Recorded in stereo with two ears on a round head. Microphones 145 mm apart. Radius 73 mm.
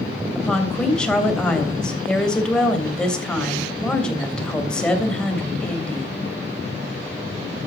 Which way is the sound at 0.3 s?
5° left (ahead or behind).